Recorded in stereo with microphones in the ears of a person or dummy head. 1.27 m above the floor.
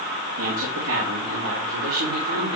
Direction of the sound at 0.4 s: 85° right.